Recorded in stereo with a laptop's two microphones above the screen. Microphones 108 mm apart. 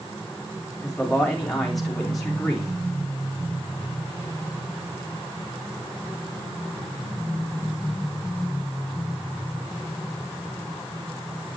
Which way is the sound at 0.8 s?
Centre (ahead or behind).